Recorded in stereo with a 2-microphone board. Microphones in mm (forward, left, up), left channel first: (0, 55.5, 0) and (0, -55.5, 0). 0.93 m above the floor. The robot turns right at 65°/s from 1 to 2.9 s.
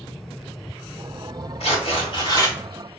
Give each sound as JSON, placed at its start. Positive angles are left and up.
{"t": 1.6, "sound": "tearing paper", "azimuth_deg": 85, "distance_m": 1.3}